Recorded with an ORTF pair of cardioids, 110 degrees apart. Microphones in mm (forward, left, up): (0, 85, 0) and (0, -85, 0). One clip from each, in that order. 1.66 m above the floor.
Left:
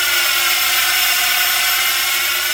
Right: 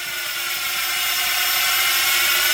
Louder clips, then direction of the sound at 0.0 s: Left 10 dB; 70° left.